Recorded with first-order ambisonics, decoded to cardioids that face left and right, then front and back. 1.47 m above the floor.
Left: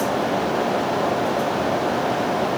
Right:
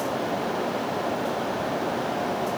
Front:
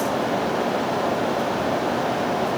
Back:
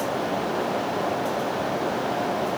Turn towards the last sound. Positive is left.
No sound to turn to.